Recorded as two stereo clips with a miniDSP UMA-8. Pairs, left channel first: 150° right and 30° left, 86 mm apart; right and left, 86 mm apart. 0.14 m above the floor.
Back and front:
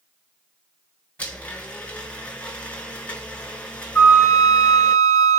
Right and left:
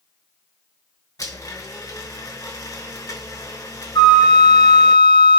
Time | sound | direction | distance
1.2 | a blender | 85° right | 2 m
4.0 | a flute | 110° right | 1.4 m